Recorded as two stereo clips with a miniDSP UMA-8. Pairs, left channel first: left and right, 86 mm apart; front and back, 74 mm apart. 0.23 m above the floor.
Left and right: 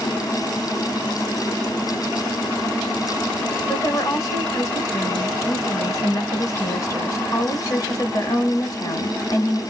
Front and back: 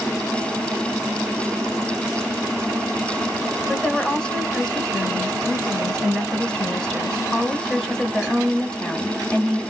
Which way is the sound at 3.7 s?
80° left.